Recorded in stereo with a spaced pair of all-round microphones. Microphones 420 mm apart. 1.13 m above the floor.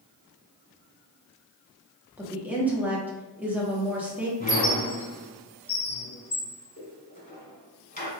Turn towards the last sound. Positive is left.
turn(degrees=20)  # may be behind; listen again after turning